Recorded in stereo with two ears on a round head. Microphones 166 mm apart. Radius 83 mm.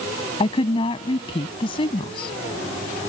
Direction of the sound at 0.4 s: 30° left (ahead or behind).